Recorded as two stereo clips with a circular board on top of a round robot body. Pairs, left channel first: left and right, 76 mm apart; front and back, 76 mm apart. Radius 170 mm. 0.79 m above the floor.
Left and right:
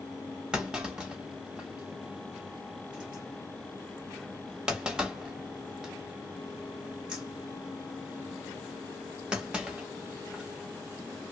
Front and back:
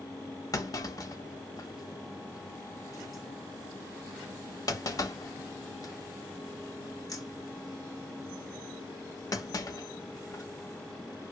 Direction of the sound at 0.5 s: 15° right.